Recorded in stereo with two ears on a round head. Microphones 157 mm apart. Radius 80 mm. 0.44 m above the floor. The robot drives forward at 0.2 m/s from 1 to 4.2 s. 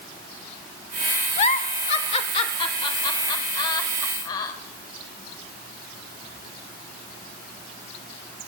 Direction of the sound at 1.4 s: 40° left (ahead or behind).